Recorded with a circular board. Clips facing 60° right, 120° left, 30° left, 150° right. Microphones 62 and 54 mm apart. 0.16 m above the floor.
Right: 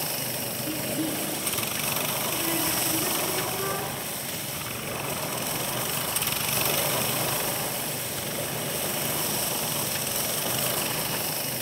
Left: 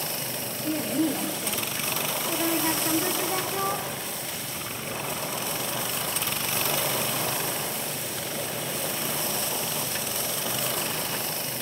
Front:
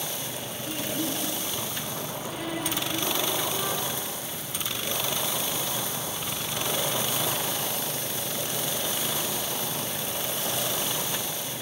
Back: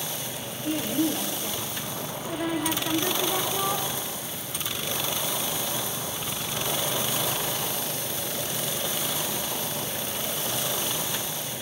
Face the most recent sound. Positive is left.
turn(degrees=150)